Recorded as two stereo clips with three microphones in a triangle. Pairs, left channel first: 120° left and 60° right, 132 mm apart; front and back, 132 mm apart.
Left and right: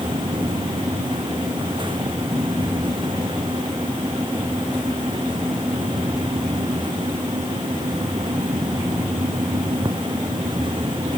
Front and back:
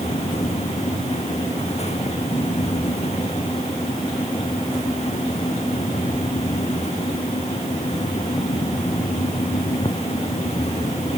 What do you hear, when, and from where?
Only background noise.